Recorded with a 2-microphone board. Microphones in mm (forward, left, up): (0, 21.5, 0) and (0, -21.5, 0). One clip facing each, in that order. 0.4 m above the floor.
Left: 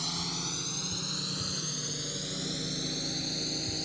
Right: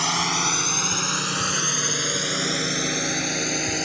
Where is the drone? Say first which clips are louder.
Right 14 dB; 65° right (ahead or behind); by 3.9 s 60° right (ahead or behind).